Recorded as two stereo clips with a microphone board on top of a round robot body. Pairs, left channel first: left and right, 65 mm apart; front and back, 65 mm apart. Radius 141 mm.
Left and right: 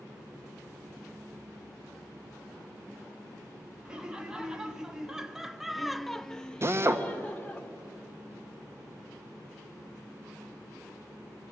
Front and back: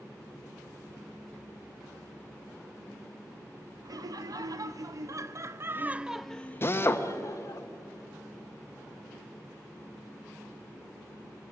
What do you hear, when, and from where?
3.9 s laughter: 170° right, 1.6 m; by 7.6 s 15° left, 1.0 m
6.6 s a drill: 50° right, 1.3 m